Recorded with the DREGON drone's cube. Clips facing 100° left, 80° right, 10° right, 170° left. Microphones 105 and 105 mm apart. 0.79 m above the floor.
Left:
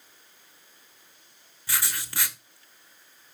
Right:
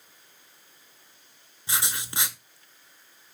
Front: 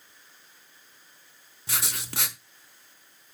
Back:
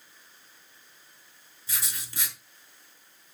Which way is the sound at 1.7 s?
10° right.